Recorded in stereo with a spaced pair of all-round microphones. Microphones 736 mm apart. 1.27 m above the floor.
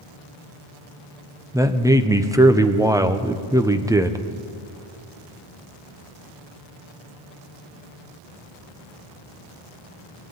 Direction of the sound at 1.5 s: 5° right (ahead or behind).